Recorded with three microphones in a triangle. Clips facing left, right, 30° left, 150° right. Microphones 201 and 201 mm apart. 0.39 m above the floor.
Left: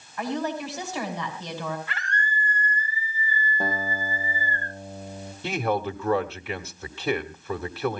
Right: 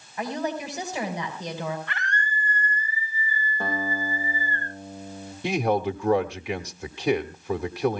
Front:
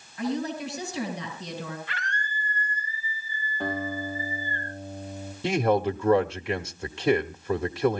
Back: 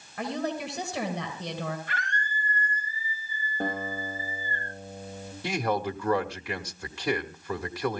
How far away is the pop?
No pop in this recording.